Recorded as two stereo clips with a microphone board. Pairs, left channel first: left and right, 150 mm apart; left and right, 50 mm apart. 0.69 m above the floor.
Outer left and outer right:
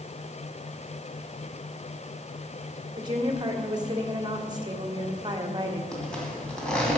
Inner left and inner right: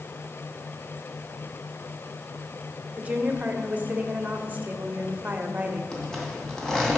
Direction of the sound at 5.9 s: 5° left (ahead or behind).